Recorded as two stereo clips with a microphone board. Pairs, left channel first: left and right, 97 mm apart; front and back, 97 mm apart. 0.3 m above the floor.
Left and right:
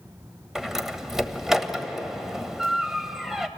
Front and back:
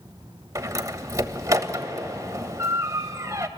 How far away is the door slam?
About 1.2 m.